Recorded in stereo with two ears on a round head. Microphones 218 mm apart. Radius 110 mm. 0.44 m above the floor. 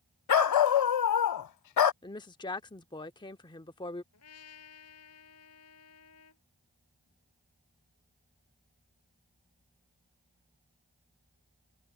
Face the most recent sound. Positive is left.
turn(degrees=65)  # may be behind; listen again after turning